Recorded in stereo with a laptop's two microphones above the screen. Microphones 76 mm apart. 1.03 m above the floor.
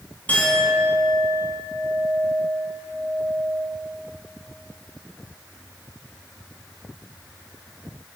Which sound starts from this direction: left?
A clink, at 0.3 s.